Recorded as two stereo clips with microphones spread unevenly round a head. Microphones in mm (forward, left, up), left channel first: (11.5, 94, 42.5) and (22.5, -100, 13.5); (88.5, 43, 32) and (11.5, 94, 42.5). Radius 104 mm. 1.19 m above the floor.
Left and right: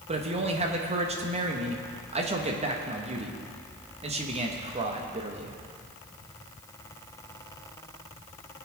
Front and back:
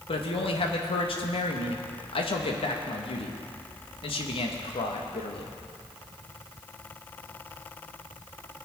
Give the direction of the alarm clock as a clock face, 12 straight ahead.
No alarm clock in this recording.